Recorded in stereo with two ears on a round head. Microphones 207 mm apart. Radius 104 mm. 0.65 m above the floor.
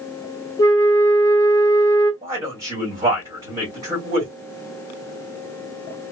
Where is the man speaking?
15° right (ahead or behind), 1.6 m.